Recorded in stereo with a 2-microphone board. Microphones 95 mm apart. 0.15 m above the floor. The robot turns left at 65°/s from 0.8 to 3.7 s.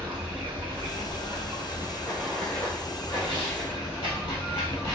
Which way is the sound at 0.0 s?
75° right.